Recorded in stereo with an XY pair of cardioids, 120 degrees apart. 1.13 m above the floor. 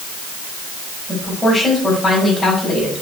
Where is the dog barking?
No dog barking in this recording.